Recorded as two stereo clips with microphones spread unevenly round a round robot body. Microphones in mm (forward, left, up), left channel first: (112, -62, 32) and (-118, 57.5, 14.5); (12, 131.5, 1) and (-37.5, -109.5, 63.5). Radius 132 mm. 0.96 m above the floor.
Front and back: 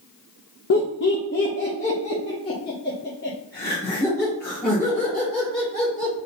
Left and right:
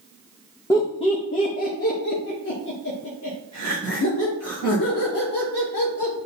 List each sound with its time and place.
0.7 s laughter: 5° left, 0.8 m; by 6.1 s 60° left, 3.5 m